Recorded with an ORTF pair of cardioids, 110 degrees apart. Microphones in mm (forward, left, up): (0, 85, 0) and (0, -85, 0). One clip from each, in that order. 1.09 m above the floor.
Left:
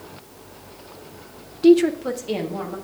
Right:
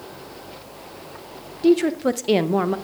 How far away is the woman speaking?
About 0.5 m.